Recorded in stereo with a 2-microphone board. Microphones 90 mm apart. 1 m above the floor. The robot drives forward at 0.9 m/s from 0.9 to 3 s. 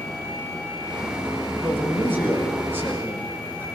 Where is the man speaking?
25° right (ahead or behind), 6 m.